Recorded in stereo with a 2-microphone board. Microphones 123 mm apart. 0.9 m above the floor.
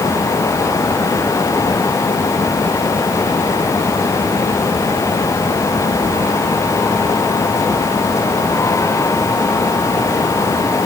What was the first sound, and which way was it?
Only background noise.